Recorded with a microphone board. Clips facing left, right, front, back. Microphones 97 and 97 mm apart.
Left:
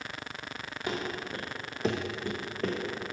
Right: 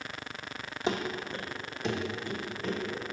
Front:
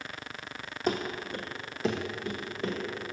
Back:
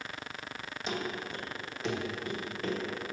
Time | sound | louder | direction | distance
0.9 | running footsteps | right 3 dB, front 5 dB | 25° right | 1.0 m